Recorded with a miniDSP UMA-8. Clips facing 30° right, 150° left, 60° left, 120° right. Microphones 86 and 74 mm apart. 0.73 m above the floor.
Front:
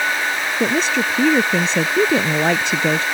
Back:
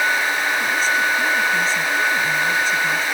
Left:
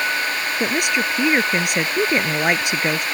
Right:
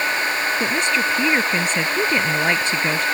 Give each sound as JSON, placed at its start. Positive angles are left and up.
{"t": 0.6, "sound": "a woman speaking", "azimuth_deg": -15}